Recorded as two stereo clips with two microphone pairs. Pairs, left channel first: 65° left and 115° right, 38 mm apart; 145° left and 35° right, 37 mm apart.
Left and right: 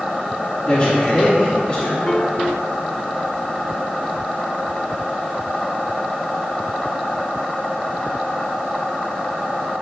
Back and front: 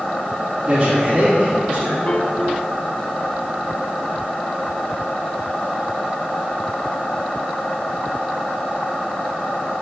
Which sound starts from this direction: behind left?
A piano, at 2.1 s.